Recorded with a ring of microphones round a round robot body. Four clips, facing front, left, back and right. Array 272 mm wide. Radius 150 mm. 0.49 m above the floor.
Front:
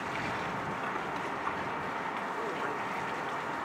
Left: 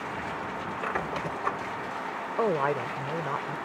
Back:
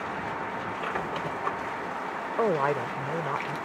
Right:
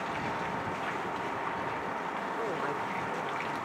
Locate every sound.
0.8 s a squeak: 125° left
2.4 s a woman speaking: 150° left